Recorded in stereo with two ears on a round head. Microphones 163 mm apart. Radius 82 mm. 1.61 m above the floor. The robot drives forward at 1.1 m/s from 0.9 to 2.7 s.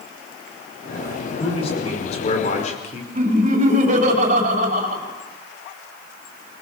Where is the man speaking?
30° left (ahead or behind), 6 m; by 3.0 s 40° left (ahead or behind), 5 m.